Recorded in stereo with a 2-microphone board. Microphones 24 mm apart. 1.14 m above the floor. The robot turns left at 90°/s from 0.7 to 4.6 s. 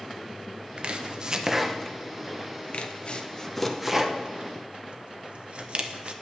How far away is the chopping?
About 0.8 m.